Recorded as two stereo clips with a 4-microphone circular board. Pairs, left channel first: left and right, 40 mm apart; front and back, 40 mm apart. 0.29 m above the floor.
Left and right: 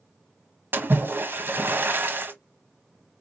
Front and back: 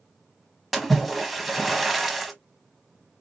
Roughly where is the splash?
Right.